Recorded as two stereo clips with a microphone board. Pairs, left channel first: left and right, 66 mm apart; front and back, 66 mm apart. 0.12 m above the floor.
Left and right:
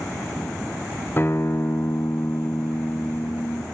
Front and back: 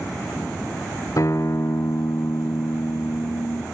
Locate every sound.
1.2 s a guitar: 35° left, 2.0 m